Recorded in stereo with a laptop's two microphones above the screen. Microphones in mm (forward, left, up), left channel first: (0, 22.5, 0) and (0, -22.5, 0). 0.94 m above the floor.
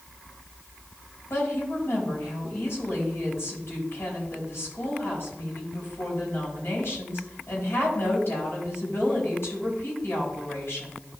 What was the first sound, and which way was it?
A woman speaking, 65° left (ahead or behind).